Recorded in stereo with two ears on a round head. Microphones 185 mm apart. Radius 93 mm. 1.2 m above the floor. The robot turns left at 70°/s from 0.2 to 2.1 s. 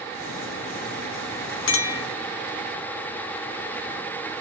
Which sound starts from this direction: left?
A clink, at 1.7 s.